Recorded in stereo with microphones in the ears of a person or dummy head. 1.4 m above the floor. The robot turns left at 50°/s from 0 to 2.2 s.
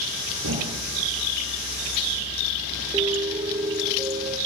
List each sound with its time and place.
0.4 s a thud: 85° right, 9.5 m; by 1.1 s 55° right (ahead or behind), 9.5 m
2.9 s a piano: 15° right (ahead or behind), 3 m